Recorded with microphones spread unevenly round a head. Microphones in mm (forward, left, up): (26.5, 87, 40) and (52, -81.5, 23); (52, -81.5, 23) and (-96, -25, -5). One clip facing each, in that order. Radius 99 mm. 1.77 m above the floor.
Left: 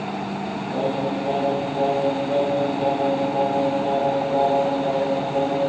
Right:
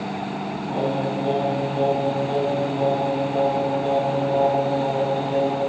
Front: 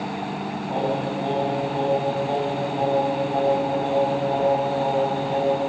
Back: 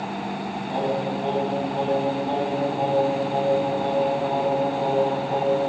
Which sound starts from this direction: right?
Singing, at 0.7 s.